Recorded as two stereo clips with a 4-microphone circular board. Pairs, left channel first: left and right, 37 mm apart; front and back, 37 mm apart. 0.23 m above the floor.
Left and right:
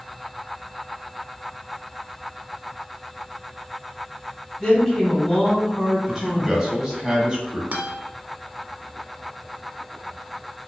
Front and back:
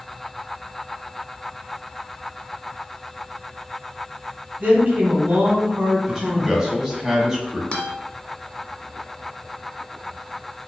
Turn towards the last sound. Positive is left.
turn(degrees=-50)